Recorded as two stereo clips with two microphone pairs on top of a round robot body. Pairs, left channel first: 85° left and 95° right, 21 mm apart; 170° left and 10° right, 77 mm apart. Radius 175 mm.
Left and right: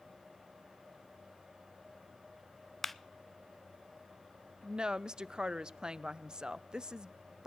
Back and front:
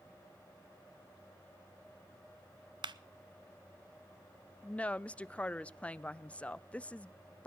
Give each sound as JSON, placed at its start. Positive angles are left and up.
{"t": 2.8, "sound": "a clap", "azimuth_deg": 5, "distance_m": 0.6}
{"t": 4.6, "sound": "a woman speaking", "azimuth_deg": -130, "distance_m": 0.5}